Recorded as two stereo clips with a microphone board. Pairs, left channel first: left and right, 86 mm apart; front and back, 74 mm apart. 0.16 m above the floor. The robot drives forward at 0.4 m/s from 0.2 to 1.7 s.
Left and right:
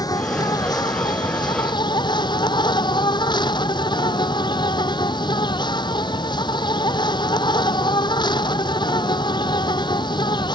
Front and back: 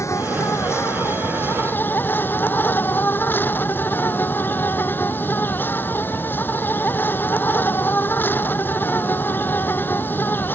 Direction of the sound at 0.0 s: 50° left.